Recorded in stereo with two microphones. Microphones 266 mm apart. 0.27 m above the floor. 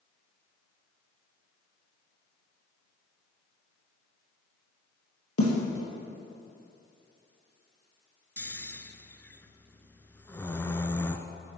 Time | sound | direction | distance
5.4 | a snare drum | 60° left (ahead or behind) | 3 m
8.4 | snoring | 10° left (ahead or behind) | 0.5 m